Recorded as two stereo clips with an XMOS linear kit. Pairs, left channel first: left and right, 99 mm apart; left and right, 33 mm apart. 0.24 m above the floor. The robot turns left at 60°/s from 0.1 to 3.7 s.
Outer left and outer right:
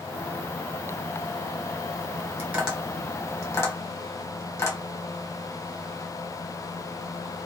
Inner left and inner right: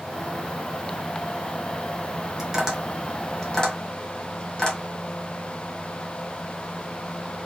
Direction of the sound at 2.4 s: 20° right (ahead or behind).